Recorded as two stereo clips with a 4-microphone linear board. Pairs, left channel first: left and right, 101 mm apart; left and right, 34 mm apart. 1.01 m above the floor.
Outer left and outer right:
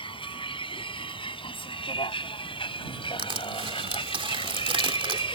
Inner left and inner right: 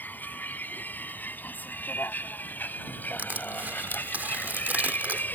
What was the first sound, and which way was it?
A vehicle, 55° left (ahead or behind).